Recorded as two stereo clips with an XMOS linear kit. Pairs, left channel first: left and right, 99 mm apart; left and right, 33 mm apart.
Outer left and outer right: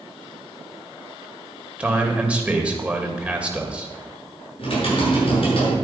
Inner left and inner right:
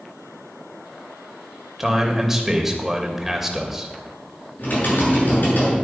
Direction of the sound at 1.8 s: 10° right (ahead or behind).